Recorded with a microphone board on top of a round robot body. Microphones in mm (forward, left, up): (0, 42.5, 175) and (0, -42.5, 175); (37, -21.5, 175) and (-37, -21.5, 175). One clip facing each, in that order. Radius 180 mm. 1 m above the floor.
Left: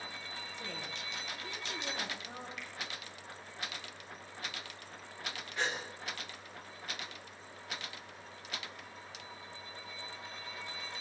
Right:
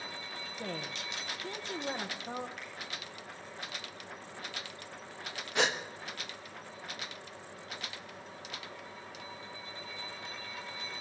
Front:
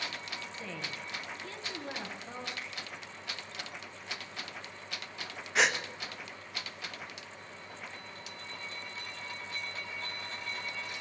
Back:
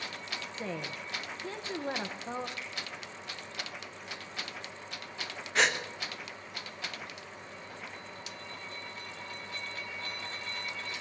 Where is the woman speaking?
130° right, 1.1 m.